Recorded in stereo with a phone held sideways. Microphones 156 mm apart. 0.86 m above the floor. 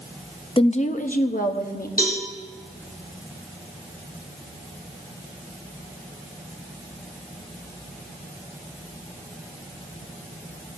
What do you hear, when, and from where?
0.6 s a woman speaking: 35° left (ahead or behind), 0.5 m; by 1.9 s 75° left (ahead or behind), 1.2 m
2.0 s a cowbell: 70° left (ahead or behind), 4.5 m